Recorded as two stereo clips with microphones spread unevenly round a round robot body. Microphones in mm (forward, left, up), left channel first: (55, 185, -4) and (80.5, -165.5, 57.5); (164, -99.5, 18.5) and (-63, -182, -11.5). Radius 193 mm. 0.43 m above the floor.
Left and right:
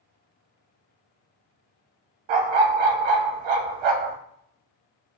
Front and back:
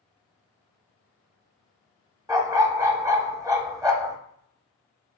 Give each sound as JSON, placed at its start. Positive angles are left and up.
{"t": 2.3, "sound": "a dog barking", "azimuth_deg": -85, "distance_m": 0.7}